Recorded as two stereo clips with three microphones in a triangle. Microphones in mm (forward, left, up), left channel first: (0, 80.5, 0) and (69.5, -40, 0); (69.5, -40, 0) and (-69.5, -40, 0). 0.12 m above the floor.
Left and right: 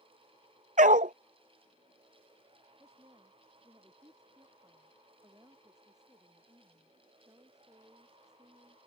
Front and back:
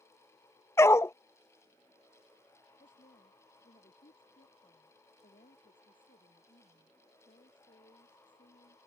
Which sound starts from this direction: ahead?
A woman speaking, at 2.8 s.